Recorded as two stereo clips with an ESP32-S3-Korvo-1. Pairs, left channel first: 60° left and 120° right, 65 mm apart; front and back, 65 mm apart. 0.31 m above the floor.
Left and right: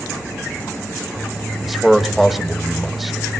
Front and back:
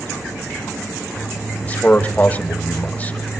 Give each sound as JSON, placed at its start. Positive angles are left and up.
{"t": 1.6, "sound": "a man speaking", "azimuth_deg": -35, "distance_m": 1.4}